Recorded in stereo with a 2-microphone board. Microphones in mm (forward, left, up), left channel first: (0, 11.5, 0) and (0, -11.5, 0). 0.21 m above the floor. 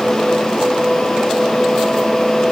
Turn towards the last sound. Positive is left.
No sound to turn to.